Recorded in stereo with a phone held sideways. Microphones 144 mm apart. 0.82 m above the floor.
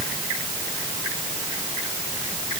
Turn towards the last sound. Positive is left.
No sound to turn to.